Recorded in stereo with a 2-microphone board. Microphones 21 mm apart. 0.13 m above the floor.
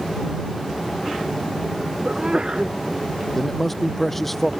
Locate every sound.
2.0 s a sneeze: 55° right (ahead or behind)
3.4 s a man speaking: 15° left (ahead or behind)